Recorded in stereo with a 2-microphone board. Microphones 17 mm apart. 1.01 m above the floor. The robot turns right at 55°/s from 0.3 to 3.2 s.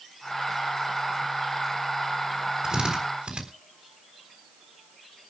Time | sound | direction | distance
2.6 | a drill | 35° right (ahead or behind) | 3.5 m